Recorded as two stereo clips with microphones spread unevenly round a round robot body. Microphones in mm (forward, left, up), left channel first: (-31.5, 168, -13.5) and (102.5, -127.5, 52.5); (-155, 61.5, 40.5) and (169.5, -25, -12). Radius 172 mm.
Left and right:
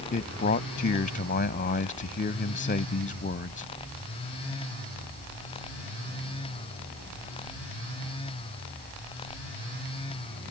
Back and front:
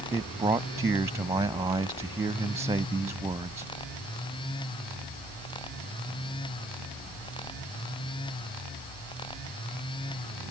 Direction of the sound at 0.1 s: 60° left.